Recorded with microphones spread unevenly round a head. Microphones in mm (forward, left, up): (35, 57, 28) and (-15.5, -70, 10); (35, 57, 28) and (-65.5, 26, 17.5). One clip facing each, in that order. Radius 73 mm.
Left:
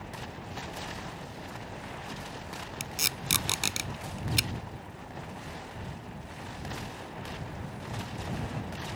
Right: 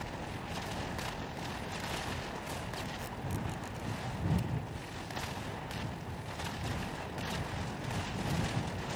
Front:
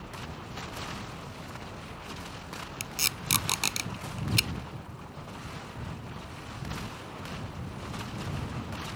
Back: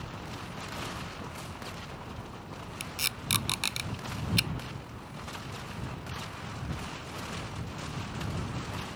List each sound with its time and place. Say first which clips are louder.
2.8 s tape being pulled: left 1 dB, front 1 dB; 65° left